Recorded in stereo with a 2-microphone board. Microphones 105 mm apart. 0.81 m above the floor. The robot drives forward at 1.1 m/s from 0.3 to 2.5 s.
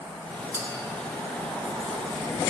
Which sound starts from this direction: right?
A clink, at 0.5 s.